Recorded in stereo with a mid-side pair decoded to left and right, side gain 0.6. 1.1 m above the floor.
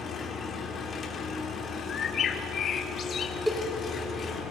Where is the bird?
45° left, 1.4 m.